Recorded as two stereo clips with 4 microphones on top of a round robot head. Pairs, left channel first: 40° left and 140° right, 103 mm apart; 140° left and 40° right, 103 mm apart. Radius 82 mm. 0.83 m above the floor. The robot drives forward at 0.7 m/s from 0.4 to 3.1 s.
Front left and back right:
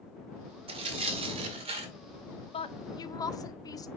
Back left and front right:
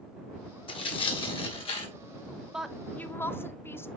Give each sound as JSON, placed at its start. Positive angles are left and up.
{"t": 0.7, "sound": "tearing paper", "azimuth_deg": -175, "distance_m": 1.3}
{"t": 2.5, "sound": "a woman speaking", "azimuth_deg": 45, "distance_m": 0.8}